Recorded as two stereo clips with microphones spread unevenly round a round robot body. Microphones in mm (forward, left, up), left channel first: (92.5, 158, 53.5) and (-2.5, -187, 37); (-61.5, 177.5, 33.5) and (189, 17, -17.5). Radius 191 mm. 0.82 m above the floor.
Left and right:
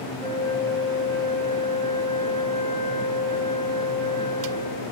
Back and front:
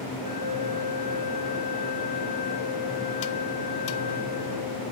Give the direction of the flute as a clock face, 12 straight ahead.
1 o'clock.